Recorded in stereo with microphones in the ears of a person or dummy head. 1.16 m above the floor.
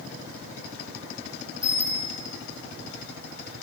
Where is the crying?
No crying in this recording.